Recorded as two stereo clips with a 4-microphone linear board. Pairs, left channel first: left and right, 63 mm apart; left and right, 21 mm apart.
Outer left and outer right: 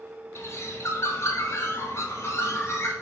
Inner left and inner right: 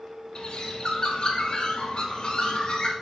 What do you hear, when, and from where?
0.3 s a bird: 45° left (ahead or behind), 1.0 m